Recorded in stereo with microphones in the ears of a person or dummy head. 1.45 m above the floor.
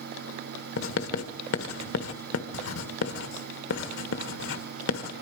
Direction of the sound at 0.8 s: 80° left.